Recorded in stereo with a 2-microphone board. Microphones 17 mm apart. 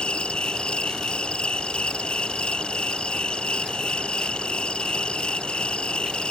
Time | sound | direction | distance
0.0 | an insect | 90° left | ?